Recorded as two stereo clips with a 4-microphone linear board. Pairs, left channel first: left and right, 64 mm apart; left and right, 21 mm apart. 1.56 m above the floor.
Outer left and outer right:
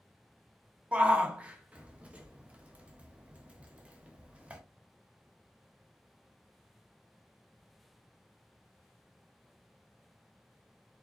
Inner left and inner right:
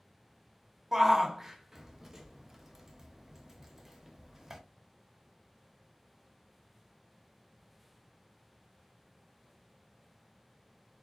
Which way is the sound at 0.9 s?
20° right (ahead or behind).